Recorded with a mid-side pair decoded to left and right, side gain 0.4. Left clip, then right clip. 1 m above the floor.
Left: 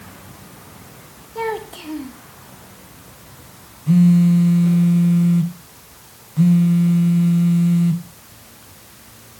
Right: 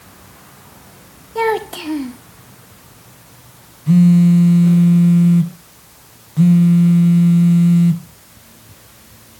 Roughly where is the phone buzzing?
Ahead right.